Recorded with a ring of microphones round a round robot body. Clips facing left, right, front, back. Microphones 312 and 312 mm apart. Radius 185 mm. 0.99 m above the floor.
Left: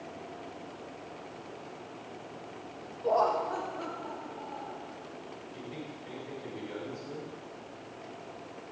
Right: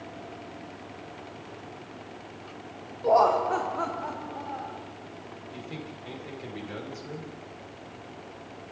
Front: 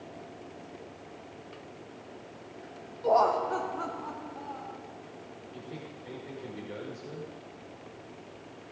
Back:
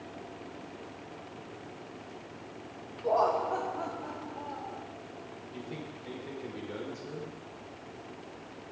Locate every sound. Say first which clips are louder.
3.0 s laughter: right 6 dB, front 2 dB; 45° right, 0.6 m; by 4.8 s 80° right, 1.3 m
5.5 s a man speaking: right 3 dB, back 2 dB; 105° right, 6 m